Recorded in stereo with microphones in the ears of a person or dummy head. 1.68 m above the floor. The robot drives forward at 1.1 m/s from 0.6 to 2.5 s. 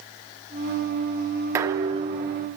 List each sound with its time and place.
1.6 s dishes clattering: 20° right (ahead or behind), 0.8 m; by 2.5 s 15° right (ahead or behind), 1.0 m